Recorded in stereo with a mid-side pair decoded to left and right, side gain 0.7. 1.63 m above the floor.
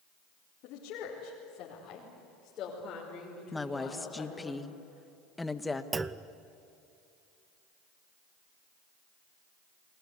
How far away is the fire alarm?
I don't hear a fire alarm.